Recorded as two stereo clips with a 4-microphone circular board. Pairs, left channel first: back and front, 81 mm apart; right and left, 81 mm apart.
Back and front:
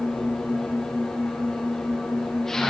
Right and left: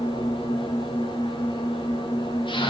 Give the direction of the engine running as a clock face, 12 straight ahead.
3 o'clock.